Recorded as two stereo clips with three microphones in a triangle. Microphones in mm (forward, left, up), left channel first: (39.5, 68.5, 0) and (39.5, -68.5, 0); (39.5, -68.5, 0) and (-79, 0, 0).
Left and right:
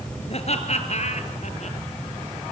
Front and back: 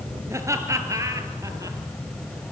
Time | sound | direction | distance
0.3 | laughter | 90° left | 2.5 m